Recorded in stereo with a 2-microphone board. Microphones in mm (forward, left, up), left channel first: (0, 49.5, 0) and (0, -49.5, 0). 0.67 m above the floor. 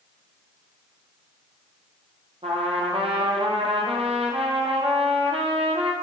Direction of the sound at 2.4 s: 80° right.